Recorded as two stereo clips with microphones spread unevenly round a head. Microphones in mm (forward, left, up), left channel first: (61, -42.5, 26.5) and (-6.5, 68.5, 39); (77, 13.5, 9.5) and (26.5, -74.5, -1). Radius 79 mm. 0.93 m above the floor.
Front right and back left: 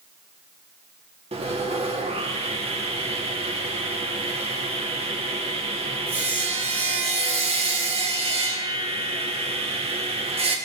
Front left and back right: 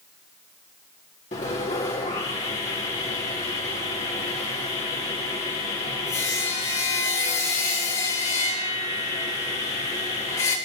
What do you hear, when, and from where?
1.3 s sawing: 80° left, 2 m